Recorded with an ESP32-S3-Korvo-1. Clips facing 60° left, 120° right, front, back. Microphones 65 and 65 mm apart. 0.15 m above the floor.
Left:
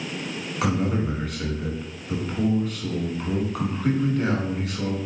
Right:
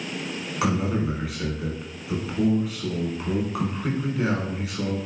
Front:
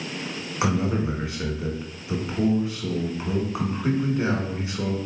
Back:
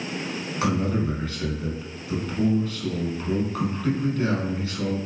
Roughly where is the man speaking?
Ahead right.